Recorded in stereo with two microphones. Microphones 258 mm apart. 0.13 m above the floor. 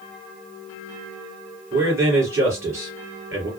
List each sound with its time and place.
1.7 s a man speaking: 10° right (ahead or behind), 2.5 m